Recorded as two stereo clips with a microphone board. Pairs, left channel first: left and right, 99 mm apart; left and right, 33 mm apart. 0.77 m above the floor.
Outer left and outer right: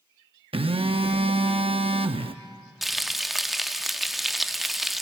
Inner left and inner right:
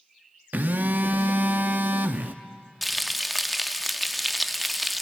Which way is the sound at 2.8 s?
Centre (ahead or behind).